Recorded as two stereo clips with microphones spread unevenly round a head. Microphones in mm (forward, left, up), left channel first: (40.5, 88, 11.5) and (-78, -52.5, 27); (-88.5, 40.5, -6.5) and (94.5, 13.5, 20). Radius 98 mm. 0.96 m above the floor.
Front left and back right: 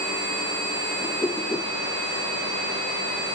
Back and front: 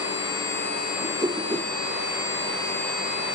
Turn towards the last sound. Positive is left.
turn(degrees=-25)